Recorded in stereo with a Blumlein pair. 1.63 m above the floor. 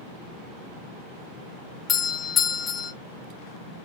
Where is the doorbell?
20° left, 0.7 m.